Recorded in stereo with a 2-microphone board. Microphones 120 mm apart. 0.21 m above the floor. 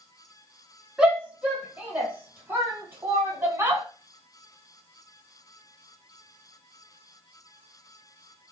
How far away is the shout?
About 1.5 m.